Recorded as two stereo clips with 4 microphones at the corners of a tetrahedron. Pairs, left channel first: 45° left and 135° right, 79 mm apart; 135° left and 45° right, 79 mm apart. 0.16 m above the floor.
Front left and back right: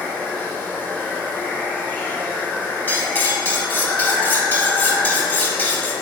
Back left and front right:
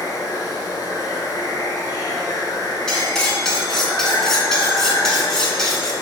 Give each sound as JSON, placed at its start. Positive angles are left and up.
{"t": 0.0, "sound": "running water", "azimuth_deg": 110, "distance_m": 0.8}
{"t": 2.9, "sound": "cutlery clinking", "azimuth_deg": 60, "distance_m": 0.8}